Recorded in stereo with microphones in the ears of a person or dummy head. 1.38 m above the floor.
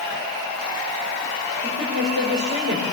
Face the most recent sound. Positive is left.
turn(degrees=-75)  # may be behind; listen again after turning